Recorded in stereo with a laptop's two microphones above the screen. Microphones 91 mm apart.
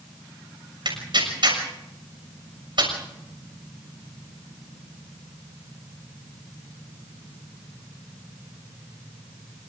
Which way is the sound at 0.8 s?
60° right (ahead or behind).